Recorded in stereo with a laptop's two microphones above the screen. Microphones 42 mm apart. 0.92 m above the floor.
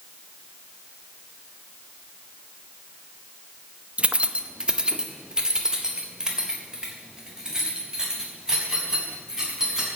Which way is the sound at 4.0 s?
35° right (ahead or behind).